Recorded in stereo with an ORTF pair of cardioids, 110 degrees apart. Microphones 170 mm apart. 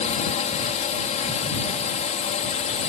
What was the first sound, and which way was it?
A drone, 45° left.